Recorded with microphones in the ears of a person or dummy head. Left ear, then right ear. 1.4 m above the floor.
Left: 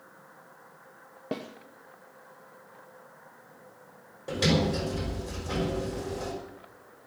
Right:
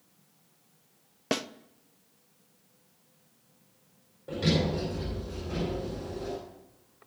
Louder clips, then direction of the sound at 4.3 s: Left 3 dB; 70° left (ahead or behind).